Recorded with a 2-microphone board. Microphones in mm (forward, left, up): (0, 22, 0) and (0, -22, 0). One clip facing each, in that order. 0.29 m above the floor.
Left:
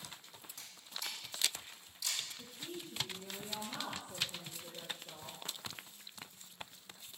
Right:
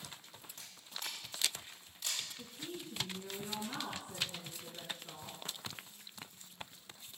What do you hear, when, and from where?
0.6 s a camera shutter: 50° right (ahead or behind), 3 m
2.4 s a woman speaking: 70° right (ahead or behind), 3 m